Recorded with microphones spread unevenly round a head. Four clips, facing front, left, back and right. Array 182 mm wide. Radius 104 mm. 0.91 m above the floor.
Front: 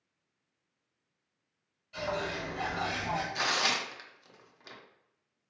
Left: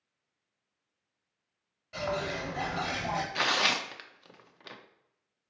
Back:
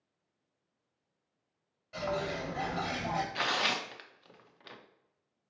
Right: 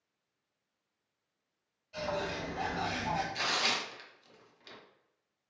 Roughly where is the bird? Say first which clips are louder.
Left 3 dB, even; left.